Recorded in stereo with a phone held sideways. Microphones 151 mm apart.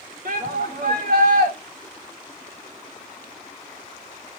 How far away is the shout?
About 2.5 m.